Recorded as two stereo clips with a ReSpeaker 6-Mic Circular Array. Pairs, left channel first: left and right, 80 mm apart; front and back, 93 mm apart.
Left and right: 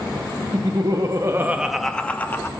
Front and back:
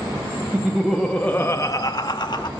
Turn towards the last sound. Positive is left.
turn(degrees=35)